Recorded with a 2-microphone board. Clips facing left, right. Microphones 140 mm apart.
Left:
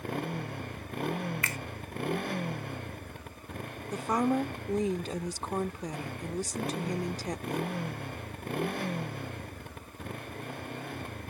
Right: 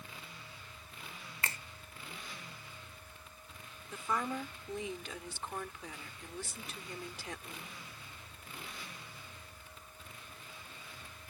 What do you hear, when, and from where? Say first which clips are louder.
0.0 s a motorcycle: left 18 dB; 60° left (ahead or behind)
1.4 s a finger snap: left 5 dB; 30° right (ahead or behind)
3.9 s a woman speaking: left 9 dB; 40° left (ahead or behind)